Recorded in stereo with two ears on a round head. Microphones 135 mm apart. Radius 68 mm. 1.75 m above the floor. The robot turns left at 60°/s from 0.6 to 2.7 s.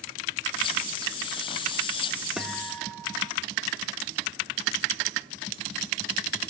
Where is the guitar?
5° right (ahead or behind), 2 m; by 3.3 s 15° left (ahead or behind), 2 m.